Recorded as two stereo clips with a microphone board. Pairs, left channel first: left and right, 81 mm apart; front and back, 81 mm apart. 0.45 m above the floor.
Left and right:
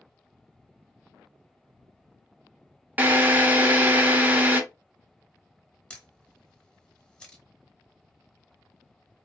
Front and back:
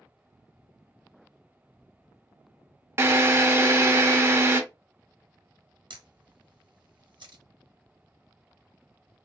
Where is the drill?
145° right, 0.5 m.